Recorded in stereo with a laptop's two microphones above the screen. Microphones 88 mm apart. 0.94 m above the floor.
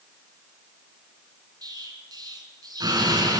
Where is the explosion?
45° right (ahead or behind), 3 m.